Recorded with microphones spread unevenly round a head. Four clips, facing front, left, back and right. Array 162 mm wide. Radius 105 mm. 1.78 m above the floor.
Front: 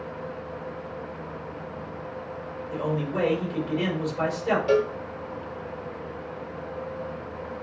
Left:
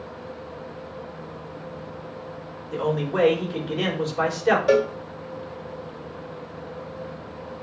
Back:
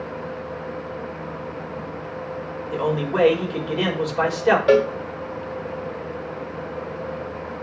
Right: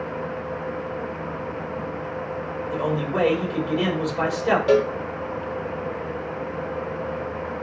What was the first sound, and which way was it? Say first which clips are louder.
A man speaking: left 1 dB, back 5 dB; straight behind.